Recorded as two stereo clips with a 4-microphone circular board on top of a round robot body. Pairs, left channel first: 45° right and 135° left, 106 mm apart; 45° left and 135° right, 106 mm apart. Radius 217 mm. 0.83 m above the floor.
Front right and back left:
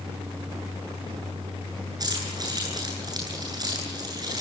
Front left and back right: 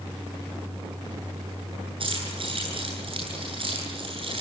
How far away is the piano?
I don't hear a piano.